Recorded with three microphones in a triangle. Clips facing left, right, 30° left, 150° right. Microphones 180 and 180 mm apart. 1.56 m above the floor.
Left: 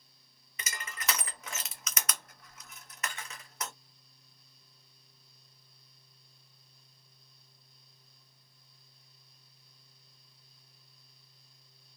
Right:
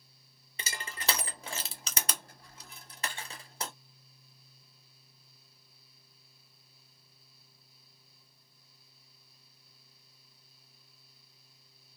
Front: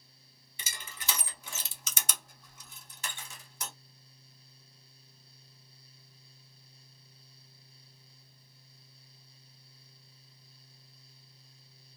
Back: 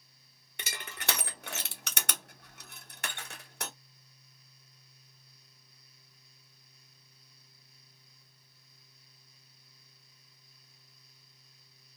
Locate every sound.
0.6 s crushing: 150° right, 0.5 m